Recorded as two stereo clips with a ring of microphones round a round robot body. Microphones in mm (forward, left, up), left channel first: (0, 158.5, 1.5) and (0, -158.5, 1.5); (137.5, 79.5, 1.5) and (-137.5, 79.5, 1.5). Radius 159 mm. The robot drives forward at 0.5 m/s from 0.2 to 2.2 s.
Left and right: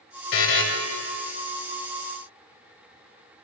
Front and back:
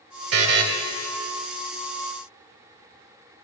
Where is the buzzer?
145° left, 1.5 m.